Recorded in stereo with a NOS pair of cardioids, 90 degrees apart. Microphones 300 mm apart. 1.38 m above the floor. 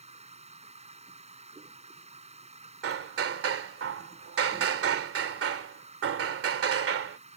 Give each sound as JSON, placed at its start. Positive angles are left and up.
{"t": 0.0, "sound": "a machine running", "azimuth_deg": -20}
{"t": 2.8, "sound": "hammering", "azimuth_deg": -50}